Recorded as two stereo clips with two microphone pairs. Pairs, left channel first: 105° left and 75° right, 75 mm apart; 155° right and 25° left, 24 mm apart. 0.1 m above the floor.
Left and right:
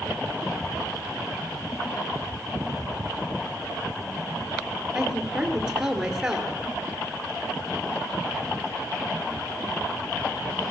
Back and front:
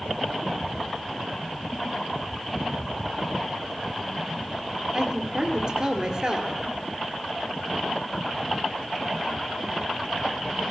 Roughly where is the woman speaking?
Ahead.